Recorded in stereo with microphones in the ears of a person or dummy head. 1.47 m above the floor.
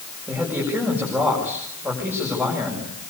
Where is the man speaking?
10° right (ahead or behind), 7 m.